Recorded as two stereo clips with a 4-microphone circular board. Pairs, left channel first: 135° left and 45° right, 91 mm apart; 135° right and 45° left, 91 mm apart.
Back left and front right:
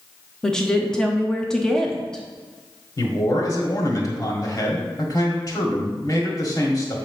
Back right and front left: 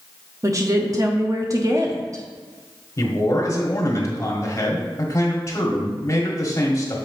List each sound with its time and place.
0.4 s a woman speaking: 60° left, 0.9 m
3.0 s a man speaking: 175° left, 1.6 m